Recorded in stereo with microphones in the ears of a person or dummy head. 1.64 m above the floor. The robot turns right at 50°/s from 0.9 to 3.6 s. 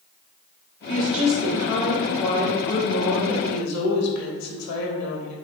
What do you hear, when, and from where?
0.9 s a woman speaking: 45° right, 0.9 m; by 5.3 s 90° left, 0.9 m